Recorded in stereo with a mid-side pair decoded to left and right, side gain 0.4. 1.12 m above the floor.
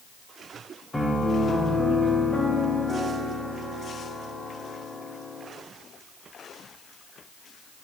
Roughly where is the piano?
Ahead.